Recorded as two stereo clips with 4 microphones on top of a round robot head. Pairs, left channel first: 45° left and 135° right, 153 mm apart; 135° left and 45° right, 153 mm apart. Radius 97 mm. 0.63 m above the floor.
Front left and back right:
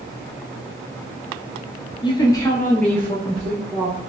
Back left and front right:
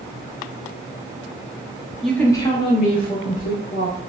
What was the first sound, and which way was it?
A woman speaking, 45° left.